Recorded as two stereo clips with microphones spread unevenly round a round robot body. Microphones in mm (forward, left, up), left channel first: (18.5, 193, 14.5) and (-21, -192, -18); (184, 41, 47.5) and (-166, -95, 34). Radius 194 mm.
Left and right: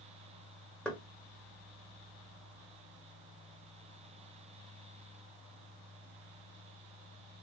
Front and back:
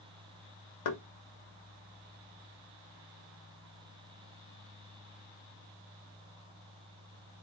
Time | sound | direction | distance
0.8 | knocking | 5° right | 0.7 m